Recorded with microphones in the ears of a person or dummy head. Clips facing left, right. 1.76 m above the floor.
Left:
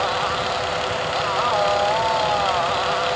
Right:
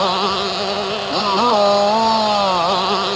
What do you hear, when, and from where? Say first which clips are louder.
0.0 s a motorcycle: right 4 dB; 80° right